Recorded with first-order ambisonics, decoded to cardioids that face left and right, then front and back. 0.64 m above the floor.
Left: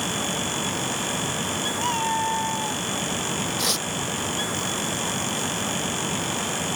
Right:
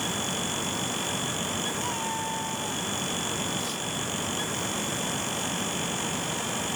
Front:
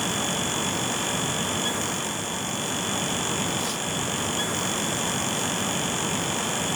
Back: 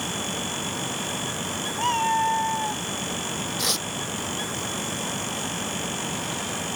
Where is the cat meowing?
150° left.